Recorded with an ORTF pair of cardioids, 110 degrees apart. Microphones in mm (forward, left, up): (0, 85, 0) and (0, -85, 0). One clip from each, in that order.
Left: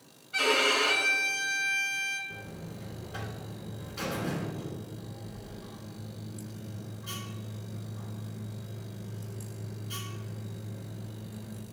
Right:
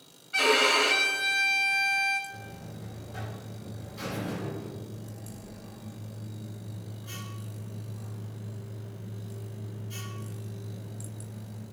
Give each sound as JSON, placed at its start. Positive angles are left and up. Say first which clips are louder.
{"t": 0.3, "sound": "a violin", "louder": "right 3 dB", "azimuth_deg": -15, "distance_m": 1.0}
{"t": 2.3, "sound": "a buzzer", "louder": "even", "azimuth_deg": 50, "distance_m": 3.0}